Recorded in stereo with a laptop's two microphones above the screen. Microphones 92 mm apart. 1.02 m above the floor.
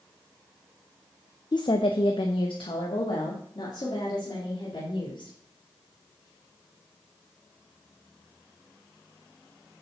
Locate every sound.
1.5 s a woman speaking: 50° left (ahead or behind), 0.5 m; by 5.3 s 60° left (ahead or behind), 3 m